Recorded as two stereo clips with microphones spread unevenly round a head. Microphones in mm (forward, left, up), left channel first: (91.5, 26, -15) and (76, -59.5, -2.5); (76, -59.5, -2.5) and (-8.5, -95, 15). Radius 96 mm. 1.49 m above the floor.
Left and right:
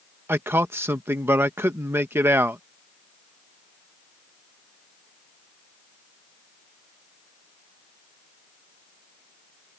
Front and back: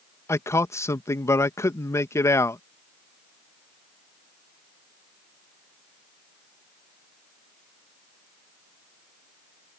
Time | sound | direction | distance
0.3 | a man speaking | 40° right | ?